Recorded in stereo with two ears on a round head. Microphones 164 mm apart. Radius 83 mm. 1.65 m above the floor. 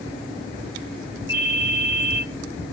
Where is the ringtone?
85° left, 6 m.